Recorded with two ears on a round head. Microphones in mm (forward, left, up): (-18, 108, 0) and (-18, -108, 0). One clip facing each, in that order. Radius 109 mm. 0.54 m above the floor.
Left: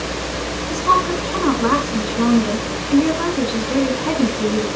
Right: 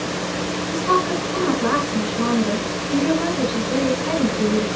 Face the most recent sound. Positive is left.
turn(degrees=65)  # may be behind; listen again after turning